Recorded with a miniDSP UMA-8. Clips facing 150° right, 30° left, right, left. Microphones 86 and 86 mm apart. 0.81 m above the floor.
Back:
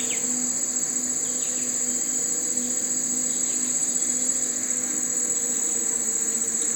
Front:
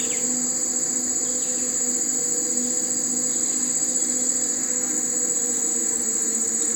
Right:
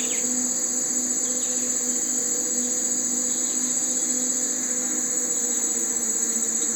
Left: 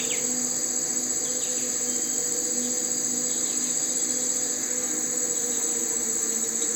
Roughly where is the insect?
Ahead right.